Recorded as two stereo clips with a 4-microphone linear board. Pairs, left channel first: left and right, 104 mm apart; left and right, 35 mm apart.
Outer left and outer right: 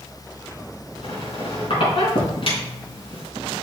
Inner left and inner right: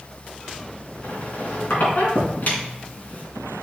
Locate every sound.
1.0 s a squeak: 65° left (ahead or behind), 4 m